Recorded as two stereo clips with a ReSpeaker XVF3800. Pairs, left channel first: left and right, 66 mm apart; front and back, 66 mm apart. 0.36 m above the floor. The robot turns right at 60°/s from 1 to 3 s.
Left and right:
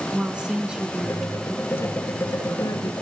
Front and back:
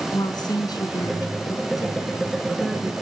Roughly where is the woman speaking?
Ahead.